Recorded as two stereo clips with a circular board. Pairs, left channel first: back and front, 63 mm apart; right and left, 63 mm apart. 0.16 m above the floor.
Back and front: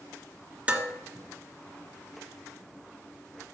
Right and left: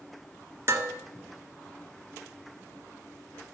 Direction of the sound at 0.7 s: 65° left.